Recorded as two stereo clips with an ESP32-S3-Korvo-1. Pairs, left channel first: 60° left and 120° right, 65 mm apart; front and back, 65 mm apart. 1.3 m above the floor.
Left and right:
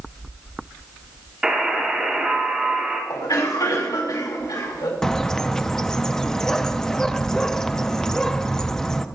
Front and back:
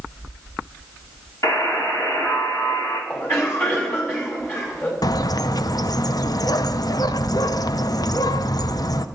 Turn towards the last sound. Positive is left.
turn(degrees=-20)